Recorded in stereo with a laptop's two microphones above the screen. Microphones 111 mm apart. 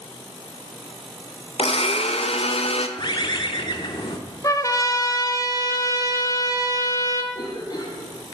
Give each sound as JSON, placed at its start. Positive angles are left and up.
{"t": 1.6, "sound": "a blender", "side_deg": 60, "distance_m": 0.7}
{"t": 3.0, "sound": "a bird", "side_deg": 45, "distance_m": 1.2}
{"t": 4.4, "sound": "a trumpet", "side_deg": 30, "distance_m": 0.9}
{"t": 7.3, "sound": "a cough", "side_deg": 35, "distance_m": 1.7}